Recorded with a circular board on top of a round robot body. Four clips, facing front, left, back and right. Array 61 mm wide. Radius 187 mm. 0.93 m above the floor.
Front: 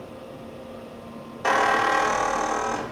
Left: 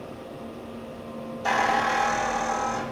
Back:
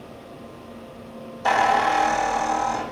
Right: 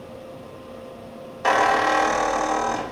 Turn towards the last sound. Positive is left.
turn(degrees=-50)